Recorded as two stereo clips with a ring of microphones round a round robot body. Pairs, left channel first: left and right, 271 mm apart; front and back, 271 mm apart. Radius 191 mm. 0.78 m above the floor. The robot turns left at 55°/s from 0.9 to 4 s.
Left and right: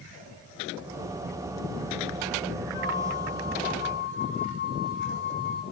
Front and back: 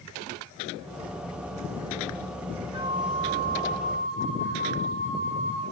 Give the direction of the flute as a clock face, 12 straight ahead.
8 o'clock.